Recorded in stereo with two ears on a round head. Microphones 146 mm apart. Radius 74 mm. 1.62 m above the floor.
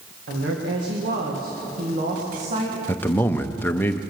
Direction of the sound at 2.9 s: 10° left (ahead or behind).